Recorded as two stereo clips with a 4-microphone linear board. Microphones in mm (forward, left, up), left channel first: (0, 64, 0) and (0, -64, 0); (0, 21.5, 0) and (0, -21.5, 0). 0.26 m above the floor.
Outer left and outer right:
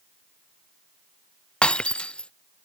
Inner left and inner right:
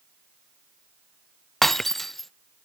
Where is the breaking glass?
10° left (ahead or behind).